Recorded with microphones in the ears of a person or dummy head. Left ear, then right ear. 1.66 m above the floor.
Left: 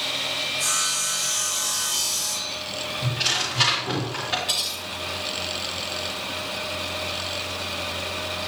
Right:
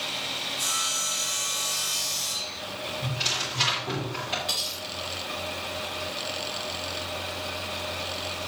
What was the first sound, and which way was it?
Sawing, 30° right (ahead or behind).